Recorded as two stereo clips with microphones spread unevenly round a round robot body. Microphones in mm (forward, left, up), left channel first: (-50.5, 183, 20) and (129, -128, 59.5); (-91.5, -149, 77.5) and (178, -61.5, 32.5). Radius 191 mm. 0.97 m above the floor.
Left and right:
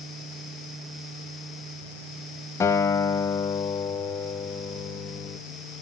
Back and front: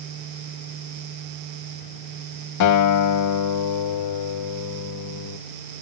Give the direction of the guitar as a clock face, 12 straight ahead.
5 o'clock.